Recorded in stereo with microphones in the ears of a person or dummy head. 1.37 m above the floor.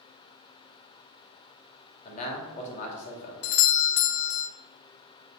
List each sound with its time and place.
2.0 s a man speaking: 40° left (ahead or behind), 2.5 m
3.4 s a doorbell: 55° left (ahead or behind), 0.6 m